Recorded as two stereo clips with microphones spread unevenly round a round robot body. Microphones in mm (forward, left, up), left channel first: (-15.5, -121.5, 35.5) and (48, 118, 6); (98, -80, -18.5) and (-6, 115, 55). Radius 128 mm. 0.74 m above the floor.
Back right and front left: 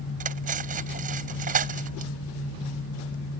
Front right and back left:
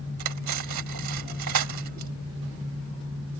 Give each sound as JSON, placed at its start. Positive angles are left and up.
{"t": 0.2, "sound": "cutlery clinking", "azimuth_deg": 135}